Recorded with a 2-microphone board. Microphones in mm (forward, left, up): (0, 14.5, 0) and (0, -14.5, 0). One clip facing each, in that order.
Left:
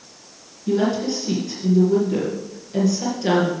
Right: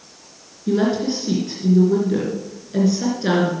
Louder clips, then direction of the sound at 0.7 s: Right 1 dB; 15° right (ahead or behind).